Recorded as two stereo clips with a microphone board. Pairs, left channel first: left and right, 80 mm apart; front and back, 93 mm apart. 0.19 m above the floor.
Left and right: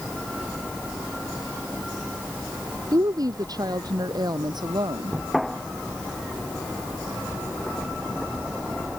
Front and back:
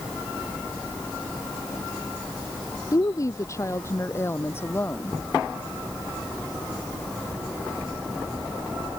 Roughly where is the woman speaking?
Ahead right.